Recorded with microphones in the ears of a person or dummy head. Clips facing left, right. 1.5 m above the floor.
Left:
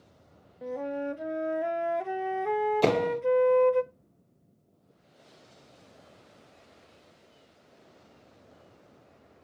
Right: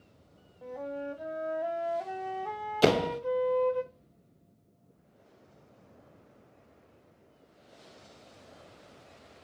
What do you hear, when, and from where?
0.6 s a flute: 30° left (ahead or behind), 0.5 m
2.8 s a door slam: 15° right (ahead or behind), 0.6 m